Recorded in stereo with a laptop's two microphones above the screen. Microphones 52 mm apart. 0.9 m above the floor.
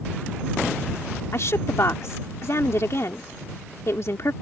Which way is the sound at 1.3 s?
60° left (ahead or behind).